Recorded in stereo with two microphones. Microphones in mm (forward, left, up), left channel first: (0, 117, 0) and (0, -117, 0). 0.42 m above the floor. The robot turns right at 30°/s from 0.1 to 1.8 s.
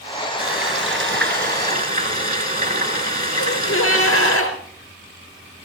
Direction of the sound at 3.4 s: 70° left (ahead or behind).